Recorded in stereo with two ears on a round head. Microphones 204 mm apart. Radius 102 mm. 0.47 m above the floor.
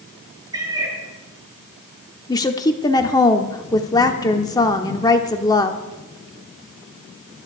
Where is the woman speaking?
15° left (ahead or behind), 1.2 m.